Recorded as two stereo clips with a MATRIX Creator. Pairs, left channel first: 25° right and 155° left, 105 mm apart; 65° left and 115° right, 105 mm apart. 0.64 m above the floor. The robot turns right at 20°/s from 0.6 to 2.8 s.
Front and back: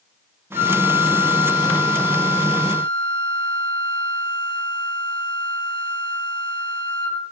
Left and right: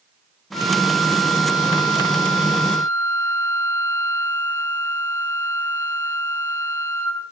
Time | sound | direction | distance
0.5 | a flute | 65° left | 5.5 m